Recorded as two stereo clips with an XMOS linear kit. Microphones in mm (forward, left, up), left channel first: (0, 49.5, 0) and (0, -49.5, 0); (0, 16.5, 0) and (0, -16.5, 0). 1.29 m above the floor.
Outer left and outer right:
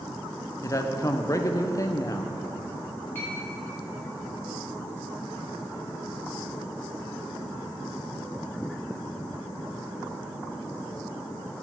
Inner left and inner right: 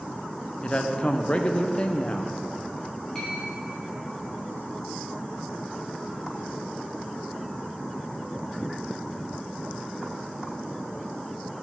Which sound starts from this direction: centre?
A clink, at 3.1 s.